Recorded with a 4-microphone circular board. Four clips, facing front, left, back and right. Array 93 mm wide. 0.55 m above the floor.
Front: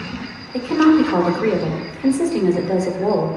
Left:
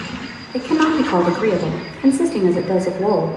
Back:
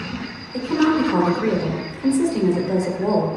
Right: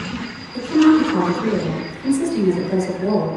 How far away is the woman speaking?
About 2.0 m.